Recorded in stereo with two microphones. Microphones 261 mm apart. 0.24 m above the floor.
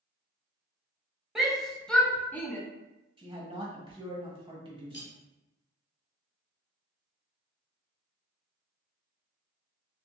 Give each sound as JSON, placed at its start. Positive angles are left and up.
{"t": 1.4, "sound": "a shout", "side_deg": 0, "distance_m": 0.9}
{"t": 3.2, "sound": "a man speaking", "side_deg": -20, "distance_m": 1.1}
{"t": 4.9, "sound": "cutlery clinking", "side_deg": 45, "distance_m": 0.9}